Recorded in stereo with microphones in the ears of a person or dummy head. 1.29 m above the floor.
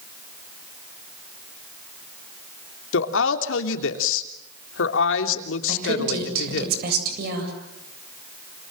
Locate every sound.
2.9 s a woman speaking: 85° left, 3 m
5.7 s a woman speaking: 55° right (ahead or behind), 8 m